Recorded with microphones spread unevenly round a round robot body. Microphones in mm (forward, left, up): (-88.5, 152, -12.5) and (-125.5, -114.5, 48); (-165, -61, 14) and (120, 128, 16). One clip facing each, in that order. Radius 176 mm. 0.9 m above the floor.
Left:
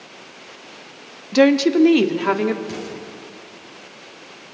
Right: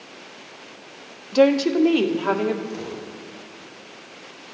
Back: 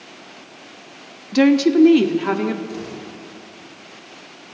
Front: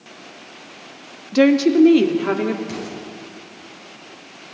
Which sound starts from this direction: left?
An explosion, at 2.7 s.